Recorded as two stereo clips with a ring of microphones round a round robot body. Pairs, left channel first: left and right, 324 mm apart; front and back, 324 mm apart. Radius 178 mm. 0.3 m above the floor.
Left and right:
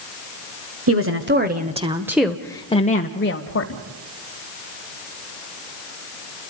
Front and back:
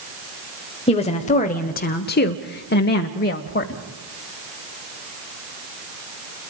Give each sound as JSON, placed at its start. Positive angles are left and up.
{"t": 0.9, "sound": "a woman speaking", "azimuth_deg": -65, "distance_m": 1.3}